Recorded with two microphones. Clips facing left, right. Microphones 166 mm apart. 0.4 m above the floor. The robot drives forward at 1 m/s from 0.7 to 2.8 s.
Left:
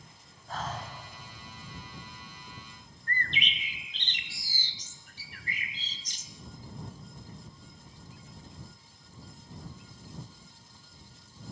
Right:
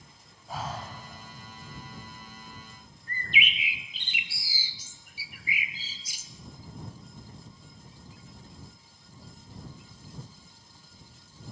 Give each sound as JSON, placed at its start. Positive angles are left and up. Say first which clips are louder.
{"t": 0.5, "sound": "breathing", "louder": "right 1 dB", "side_deg": -10, "distance_m": 2.5}
{"t": 3.1, "sound": "a bird", "louder": "right 2 dB", "side_deg": -10, "distance_m": 0.9}